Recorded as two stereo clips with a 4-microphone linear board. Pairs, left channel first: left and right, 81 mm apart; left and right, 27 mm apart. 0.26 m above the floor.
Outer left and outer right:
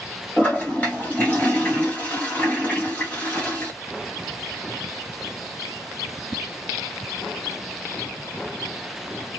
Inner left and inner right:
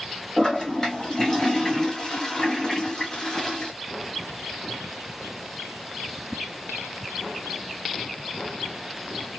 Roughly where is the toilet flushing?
Centre.